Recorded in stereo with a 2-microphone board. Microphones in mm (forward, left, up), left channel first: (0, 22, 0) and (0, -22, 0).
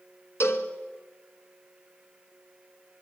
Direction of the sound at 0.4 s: 65° left (ahead or behind).